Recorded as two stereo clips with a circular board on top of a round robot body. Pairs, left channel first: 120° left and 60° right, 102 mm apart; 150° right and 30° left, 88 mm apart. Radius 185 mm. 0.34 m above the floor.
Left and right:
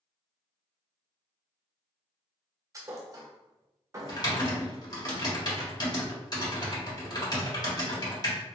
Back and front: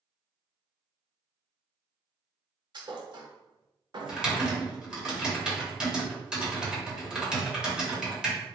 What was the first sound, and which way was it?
A thud, 5° right.